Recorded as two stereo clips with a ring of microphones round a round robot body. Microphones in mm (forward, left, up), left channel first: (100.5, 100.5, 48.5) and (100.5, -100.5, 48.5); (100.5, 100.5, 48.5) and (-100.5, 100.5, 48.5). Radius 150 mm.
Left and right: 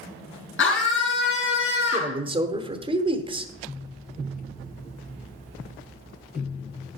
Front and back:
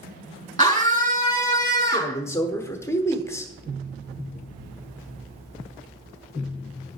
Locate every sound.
0.6 s a scream: 70° left, 4.5 m
1.9 s a man speaking: 60° right, 1.0 m